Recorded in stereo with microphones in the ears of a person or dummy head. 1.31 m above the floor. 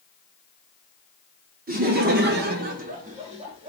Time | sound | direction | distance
1.7 | laughter | 35° right (ahead or behind) | 0.7 m